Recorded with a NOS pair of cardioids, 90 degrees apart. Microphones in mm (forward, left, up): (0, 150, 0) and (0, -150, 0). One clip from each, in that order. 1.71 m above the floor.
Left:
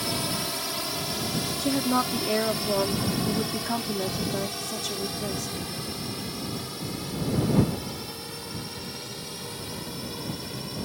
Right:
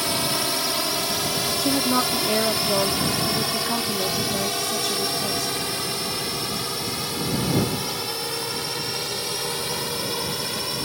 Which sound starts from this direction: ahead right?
A drone, at 0.0 s.